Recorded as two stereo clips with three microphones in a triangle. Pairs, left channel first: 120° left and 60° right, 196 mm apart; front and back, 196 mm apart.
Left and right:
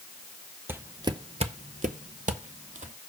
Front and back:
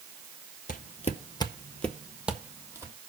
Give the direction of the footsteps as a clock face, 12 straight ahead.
12 o'clock.